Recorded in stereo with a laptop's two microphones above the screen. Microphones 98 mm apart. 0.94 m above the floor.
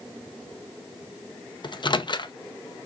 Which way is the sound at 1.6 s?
55° left (ahead or behind).